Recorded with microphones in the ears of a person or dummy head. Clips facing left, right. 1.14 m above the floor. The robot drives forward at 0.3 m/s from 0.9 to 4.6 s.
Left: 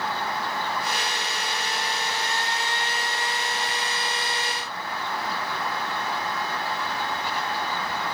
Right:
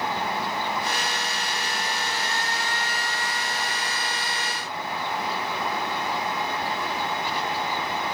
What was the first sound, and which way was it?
Only background noise.